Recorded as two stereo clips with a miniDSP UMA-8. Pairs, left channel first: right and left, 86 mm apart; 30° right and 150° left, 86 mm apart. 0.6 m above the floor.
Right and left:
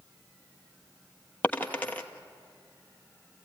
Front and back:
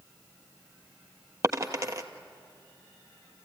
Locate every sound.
1.4 s a dropped coin: 160° right, 1.4 m